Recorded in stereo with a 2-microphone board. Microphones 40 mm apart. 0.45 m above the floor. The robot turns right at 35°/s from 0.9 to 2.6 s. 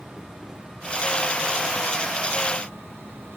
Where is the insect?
165° right; by 3.4 s 105° right.